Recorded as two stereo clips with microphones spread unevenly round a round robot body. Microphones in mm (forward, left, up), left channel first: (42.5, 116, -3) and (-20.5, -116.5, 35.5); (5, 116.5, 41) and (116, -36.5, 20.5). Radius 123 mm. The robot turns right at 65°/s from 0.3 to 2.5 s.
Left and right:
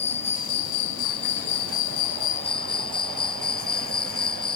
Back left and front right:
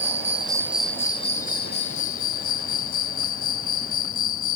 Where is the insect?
5° left; by 4.6 s 150° left.